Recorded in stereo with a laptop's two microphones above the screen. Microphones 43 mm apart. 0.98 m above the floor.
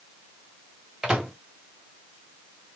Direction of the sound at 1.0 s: 10° right (ahead or behind).